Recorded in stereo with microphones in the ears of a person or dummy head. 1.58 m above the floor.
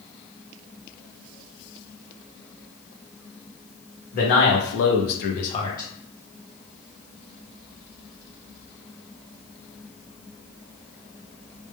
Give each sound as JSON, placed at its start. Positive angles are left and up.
{"t": 4.1, "sound": "a man speaking", "side_deg": 50, "distance_m": 0.9}